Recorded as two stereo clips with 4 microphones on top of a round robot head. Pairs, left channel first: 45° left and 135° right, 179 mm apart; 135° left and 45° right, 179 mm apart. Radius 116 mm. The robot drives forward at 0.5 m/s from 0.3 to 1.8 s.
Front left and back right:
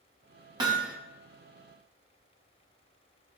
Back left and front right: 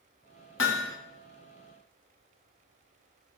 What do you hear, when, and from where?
0.6 s hammering: 155° left, 1.0 m; by 1.0 s 160° left, 1.1 m